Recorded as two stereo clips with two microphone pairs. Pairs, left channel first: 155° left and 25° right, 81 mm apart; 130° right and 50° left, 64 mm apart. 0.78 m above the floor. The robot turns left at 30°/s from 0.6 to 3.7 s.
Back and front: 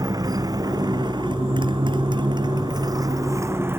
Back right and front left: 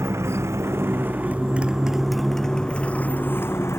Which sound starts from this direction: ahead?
A motorcycle, at 0.0 s.